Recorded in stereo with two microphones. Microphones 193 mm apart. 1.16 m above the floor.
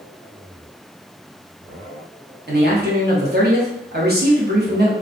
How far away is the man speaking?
About 1.0 m.